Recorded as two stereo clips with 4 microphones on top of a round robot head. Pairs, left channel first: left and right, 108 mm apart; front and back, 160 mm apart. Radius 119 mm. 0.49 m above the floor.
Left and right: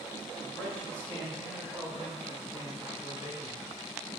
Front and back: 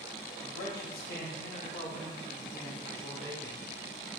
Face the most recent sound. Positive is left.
turn(degrees=-30)